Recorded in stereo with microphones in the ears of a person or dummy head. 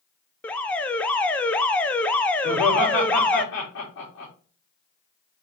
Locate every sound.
0.4 s an alarm: 10° left (ahead or behind), 0.6 m
2.4 s laughter: 70° left (ahead or behind), 3.5 m